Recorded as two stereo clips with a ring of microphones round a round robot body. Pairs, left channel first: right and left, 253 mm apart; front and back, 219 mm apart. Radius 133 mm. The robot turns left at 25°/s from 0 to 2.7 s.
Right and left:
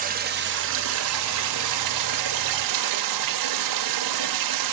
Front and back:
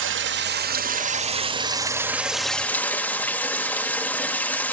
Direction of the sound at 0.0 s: 150° left.